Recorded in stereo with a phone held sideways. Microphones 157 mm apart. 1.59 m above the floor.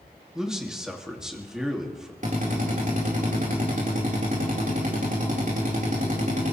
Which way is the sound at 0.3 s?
5° right (ahead or behind).